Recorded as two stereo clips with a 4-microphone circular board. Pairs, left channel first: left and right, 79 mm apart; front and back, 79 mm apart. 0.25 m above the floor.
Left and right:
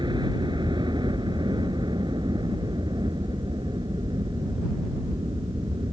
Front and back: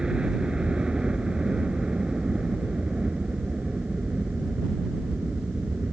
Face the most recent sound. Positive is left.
turn(degrees=-100)